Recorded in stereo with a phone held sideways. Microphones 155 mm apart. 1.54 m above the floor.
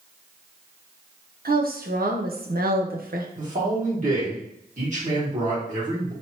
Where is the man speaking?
55° right (ahead or behind), 1.9 m.